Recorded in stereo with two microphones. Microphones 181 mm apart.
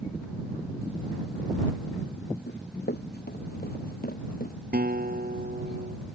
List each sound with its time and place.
2.5 s running footsteps: 70° left (ahead or behind); by 4.5 s 55° left (ahead or behind)
4.7 s a guitar: 55° right (ahead or behind)